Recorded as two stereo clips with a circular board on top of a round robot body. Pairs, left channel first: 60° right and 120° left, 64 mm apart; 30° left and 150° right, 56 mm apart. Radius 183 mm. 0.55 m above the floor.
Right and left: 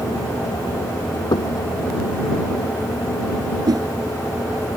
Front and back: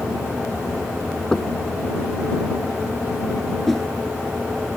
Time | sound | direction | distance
1.3 | knocking | 50° right | ?
3.7 | a whoosh | 115° left | ?